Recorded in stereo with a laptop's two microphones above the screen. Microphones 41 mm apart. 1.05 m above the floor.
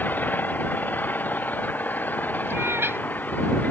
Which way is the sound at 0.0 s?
45° left (ahead or behind).